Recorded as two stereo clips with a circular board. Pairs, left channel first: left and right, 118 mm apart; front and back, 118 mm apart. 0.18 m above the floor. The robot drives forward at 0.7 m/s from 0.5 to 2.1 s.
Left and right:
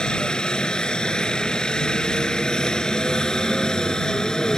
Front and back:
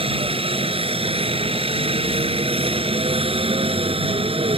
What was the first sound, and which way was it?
A helicopter, 170° left.